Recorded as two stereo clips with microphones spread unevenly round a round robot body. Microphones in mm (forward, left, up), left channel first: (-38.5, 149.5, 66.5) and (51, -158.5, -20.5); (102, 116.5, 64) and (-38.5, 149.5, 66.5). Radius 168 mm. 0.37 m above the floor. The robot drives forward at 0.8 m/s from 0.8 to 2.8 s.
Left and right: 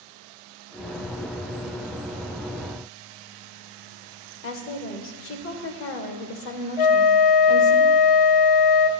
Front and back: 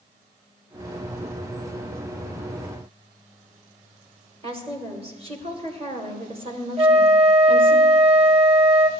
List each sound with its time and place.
4.4 s a woman speaking: 155° left, 1.1 m
6.8 s a flute: 115° left, 0.7 m